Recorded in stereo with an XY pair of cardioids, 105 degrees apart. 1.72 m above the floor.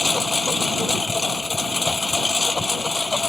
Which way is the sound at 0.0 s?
20° left.